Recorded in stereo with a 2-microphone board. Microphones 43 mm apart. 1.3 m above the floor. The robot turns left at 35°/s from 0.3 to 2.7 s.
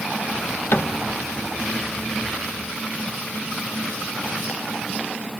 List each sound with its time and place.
0.7 s a cupboard door: 65° left (ahead or behind), 0.8 m; by 0.9 s 70° left (ahead or behind), 0.8 m